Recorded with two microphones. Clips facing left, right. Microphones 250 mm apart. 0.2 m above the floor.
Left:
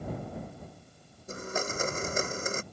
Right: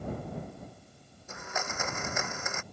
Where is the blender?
35° left (ahead or behind).